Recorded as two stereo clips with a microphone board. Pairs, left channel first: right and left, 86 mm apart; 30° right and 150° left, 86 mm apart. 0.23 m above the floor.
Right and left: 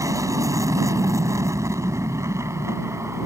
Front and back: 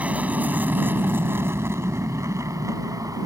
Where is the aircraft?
90° left; by 3.3 s 135° left.